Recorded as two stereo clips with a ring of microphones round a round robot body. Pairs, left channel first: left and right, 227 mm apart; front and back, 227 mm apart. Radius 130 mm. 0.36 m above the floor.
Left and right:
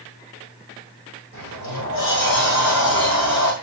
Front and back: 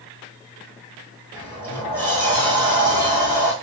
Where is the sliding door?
80° left, 4 m.